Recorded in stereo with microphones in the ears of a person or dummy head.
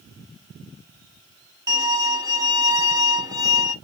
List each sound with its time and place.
1.7 s a violin: 10° right (ahead or behind), 0.6 m